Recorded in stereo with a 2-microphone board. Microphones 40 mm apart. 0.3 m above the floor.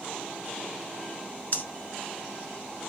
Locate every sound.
1.5 s breathing: 45° left (ahead or behind), 0.9 m